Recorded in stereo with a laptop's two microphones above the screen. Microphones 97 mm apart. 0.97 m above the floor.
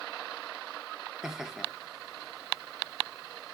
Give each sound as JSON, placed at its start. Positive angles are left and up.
{"t": 1.2, "sound": "laughter", "side_deg": -5, "distance_m": 1.0}